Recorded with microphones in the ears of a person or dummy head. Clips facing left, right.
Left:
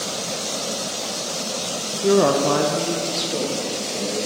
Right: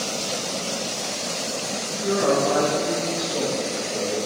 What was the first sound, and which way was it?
A woman speaking, 60° left (ahead or behind).